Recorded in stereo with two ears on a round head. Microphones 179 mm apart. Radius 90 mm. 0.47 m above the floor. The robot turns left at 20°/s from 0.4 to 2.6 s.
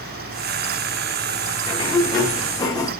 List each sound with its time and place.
1.7 s a sliding door: 20° left (ahead or behind), 0.9 m